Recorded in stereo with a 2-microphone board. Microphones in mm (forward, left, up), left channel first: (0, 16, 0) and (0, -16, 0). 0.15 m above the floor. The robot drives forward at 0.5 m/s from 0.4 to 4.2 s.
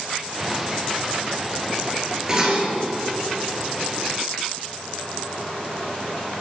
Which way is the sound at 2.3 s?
25° right (ahead or behind).